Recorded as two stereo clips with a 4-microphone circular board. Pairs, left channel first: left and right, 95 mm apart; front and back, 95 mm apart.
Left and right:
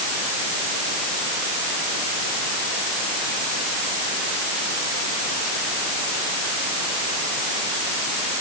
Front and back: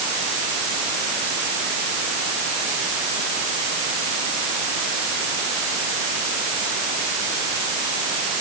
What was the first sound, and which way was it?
Only background noise.